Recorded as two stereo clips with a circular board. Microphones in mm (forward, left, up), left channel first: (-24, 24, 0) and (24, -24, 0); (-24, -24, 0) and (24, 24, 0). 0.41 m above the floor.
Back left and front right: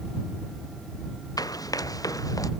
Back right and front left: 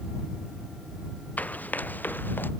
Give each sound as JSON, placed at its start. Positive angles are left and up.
{"t": 1.4, "sound": "running footsteps", "azimuth_deg": 160}